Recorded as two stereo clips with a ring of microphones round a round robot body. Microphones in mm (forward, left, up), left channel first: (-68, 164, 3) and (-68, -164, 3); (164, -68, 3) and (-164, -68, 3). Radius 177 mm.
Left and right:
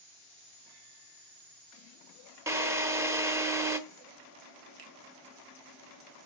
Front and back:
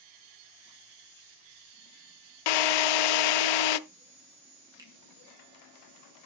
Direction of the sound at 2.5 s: 5° right.